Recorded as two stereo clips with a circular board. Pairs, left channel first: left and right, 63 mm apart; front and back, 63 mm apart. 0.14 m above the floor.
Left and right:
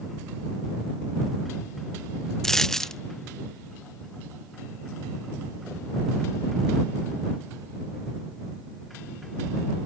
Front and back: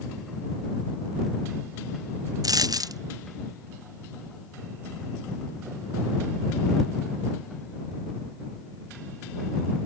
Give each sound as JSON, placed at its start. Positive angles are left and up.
{"t": 2.4, "sound": "a dropped coin", "azimuth_deg": 170}